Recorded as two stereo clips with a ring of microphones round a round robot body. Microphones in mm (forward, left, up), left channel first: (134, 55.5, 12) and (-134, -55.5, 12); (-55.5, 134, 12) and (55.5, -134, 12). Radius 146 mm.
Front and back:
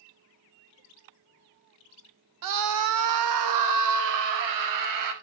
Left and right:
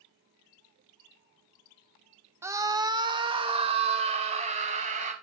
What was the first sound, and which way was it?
A scream, 150° right.